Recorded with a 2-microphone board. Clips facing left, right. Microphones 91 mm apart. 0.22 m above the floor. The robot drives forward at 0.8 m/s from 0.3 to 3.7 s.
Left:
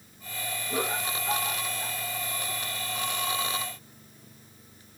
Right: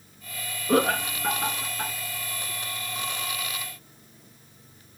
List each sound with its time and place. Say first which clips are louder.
0.7 s laughter: right 9 dB; 70° right (ahead or behind), 3 m; by 1.9 s 65° right (ahead or behind), 3 m